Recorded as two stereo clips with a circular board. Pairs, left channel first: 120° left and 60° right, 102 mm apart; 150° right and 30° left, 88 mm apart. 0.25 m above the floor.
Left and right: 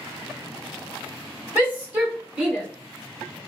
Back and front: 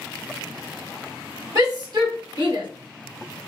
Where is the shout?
5° left, 1.9 m; by 2.7 s 20° left, 2.5 m.